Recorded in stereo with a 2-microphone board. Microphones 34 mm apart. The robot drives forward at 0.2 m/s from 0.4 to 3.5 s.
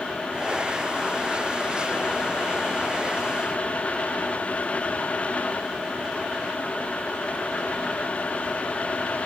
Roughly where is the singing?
No singing in this recording.